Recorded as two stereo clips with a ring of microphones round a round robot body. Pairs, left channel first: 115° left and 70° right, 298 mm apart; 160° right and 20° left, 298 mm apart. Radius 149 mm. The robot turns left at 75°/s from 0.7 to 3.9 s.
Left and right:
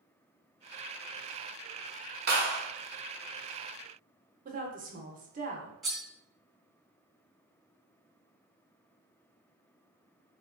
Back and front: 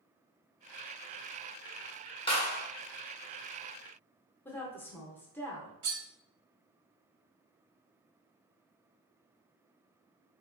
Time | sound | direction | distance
2.3 | a clap | 95° right | 1.3 m
4.5 | a woman speaking | 85° right | 0.8 m
5.8 | cutlery clinking | 20° left | 1.4 m